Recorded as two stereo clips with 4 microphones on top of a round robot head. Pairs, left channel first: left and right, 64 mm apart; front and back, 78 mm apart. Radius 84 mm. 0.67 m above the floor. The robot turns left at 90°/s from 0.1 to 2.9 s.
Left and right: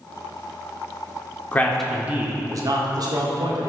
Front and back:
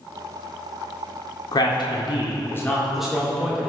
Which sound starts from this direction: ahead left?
A man speaking, at 1.5 s.